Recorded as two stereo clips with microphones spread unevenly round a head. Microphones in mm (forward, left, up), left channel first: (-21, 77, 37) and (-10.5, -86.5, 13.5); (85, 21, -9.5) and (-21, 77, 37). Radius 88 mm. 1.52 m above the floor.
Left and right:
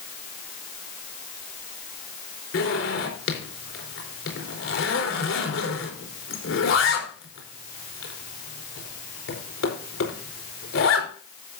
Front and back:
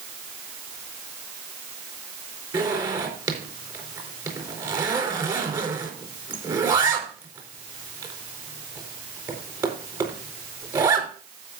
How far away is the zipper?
About 4.5 m.